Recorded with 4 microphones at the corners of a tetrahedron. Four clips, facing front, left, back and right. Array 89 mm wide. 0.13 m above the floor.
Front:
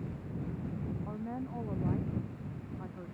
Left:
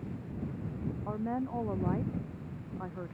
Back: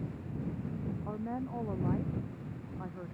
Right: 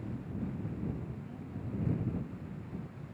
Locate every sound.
1.1 s a woman speaking: 105° left; by 3.1 s 110° left